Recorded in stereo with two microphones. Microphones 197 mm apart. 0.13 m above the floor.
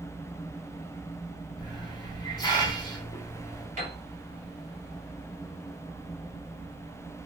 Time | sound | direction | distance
1.6 | a hiss | 20° left (ahead or behind) | 1.2 m
3.8 | a piano | 40° right (ahead or behind) | 1.4 m